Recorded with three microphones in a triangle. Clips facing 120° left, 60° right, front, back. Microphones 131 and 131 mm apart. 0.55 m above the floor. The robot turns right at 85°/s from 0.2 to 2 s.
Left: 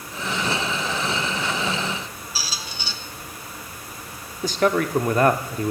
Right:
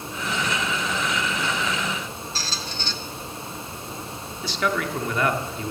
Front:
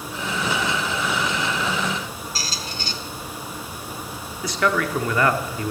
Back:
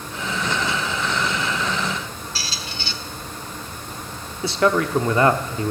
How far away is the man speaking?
About 0.8 m.